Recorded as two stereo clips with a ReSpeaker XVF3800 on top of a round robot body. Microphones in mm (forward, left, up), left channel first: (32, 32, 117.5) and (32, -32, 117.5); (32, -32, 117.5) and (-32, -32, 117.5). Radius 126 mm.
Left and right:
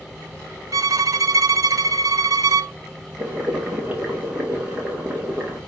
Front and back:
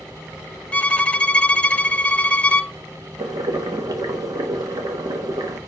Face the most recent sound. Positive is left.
turn(degrees=-160)